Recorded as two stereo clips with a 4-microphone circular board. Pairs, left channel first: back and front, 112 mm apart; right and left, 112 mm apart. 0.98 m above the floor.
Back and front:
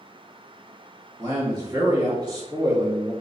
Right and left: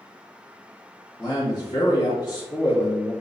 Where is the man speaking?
45° right, 1.6 m.